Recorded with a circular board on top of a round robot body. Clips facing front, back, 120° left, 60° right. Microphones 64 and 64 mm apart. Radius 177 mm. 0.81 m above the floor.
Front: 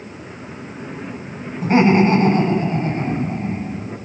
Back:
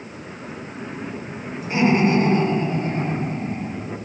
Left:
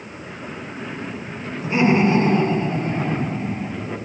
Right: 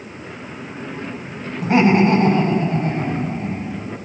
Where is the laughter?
40° right, 7 m; by 3.7 s 45° right, 8 m.